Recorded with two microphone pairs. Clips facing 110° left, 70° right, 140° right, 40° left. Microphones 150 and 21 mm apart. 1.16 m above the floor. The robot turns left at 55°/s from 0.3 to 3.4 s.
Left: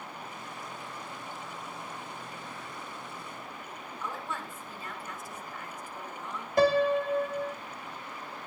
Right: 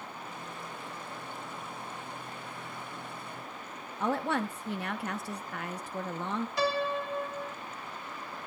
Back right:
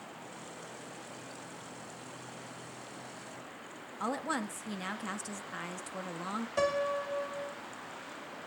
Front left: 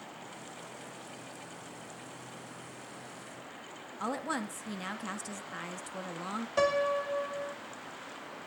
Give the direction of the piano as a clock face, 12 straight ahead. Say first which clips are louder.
Left 9 dB, front left 3 dB; 8 o'clock.